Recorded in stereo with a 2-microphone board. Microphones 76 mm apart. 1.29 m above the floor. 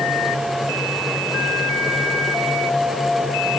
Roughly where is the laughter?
No laughter in this recording.